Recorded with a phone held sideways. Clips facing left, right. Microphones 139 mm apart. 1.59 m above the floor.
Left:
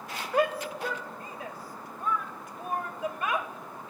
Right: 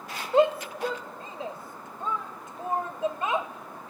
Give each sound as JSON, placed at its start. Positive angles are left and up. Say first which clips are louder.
{"t": 0.3, "sound": "a shout", "louder": "right 5 dB", "side_deg": -25, "distance_m": 0.7}